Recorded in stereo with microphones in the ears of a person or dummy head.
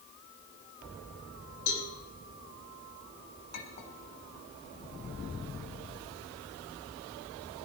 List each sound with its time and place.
1.7 s a cowbell: 80° left, 5 m
3.5 s a clink: 75° left (ahead or behind), 4 m